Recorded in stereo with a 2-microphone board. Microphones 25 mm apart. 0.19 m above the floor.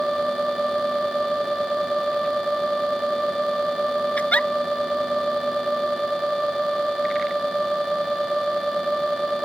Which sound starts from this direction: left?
A giggle, at 4.2 s.